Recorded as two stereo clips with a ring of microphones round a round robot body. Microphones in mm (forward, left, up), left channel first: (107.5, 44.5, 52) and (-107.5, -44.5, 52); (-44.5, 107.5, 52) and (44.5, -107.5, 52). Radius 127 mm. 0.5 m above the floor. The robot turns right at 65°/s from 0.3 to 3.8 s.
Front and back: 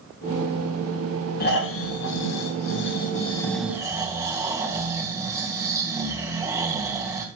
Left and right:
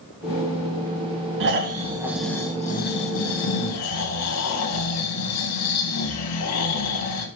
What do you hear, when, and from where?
1.4 s snoring: 30° right, 2.5 m; by 7.3 s 125° left, 2.5 m